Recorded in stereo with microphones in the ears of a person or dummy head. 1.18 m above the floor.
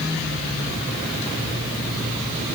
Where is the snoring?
No snoring in this recording.